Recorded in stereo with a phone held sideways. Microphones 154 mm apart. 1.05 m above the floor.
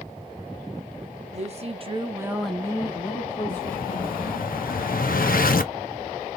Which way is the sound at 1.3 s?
45° right (ahead or behind).